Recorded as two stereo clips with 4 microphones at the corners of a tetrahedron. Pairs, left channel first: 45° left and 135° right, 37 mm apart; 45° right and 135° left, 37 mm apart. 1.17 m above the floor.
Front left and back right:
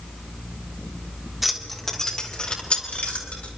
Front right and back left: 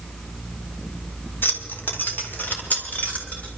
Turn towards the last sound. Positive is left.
turn(degrees=0)